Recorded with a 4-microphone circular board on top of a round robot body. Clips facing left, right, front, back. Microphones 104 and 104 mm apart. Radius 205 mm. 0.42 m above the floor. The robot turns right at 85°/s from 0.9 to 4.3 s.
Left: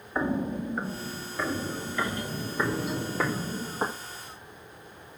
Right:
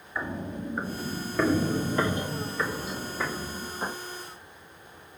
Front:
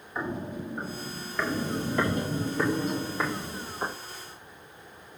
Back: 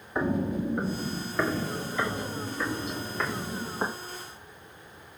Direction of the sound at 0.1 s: 150° left.